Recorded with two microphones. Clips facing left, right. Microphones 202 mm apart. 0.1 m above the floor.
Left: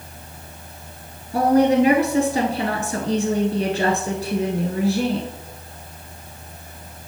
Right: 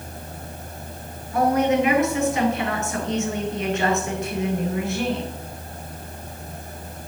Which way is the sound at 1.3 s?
35° left (ahead or behind).